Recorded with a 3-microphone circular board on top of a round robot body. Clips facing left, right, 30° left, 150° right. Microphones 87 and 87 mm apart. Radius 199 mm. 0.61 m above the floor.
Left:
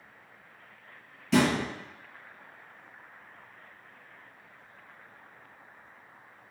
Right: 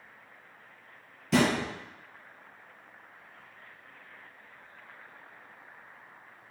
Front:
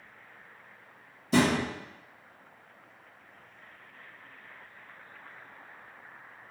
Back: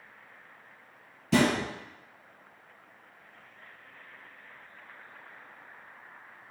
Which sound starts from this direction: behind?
A thud, at 1.3 s.